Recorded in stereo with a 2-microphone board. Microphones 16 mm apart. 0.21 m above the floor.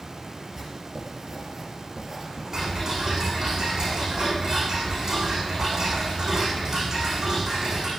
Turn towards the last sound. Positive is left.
turn(degrees=-35)  # may be behind; listen again after turning